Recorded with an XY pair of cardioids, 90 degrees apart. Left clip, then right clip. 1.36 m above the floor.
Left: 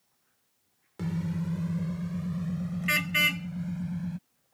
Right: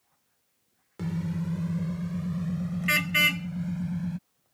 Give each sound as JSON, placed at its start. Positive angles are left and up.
{"t": 1.0, "sound": "a car horn", "azimuth_deg": -5}